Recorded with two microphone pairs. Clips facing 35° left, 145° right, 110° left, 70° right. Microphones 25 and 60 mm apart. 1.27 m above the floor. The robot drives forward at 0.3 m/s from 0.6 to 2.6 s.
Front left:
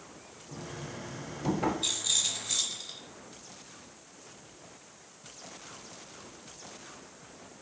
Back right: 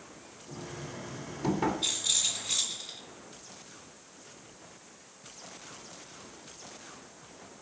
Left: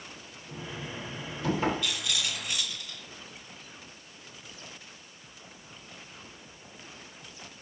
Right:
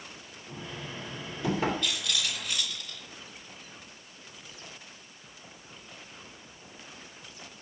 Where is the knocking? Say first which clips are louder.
Even, left 1 dB; 140° right, 3 m; by 1.7 s 145° right, 3 m.